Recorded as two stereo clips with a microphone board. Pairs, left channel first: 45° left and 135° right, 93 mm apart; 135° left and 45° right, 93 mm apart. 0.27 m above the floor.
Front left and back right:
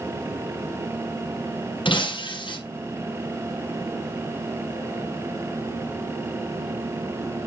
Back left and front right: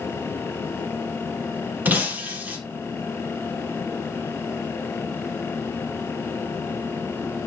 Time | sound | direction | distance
1.9 | breaking glass | 25° left | 3 m